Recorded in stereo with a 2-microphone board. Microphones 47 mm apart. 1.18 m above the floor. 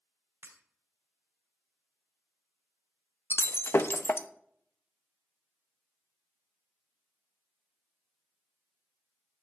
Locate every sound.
0.4 s breaking glass: 55° right (ahead or behind), 2.5 m
3.3 s breaking glass: 60° left (ahead or behind), 0.8 m